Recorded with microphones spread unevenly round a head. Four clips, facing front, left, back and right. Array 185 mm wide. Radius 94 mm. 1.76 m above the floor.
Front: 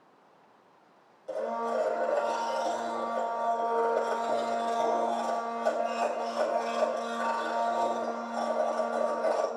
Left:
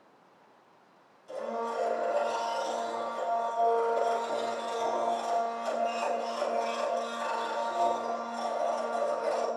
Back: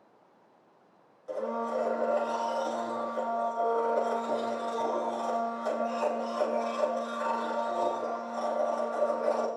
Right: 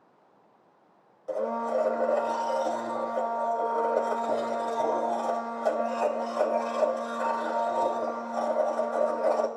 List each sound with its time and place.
1.3 s a blender: 75° right, 2.5 m